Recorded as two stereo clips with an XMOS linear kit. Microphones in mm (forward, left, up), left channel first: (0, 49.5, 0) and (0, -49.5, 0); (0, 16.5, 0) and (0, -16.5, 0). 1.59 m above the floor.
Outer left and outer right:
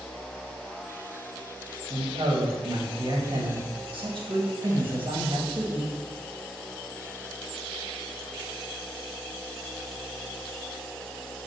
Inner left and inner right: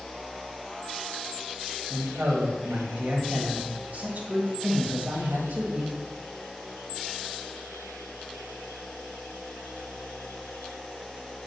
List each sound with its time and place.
1.9 s a man speaking: 65° right (ahead or behind), 2.0 m